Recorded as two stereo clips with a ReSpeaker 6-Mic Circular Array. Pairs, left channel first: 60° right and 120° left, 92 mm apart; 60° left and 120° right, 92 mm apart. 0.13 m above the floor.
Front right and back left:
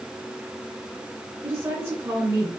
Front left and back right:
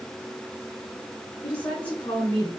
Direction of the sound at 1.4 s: 120° left.